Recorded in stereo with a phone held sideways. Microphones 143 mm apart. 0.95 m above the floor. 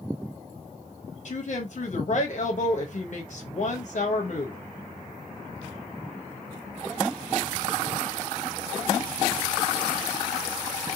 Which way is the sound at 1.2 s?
55° left (ahead or behind).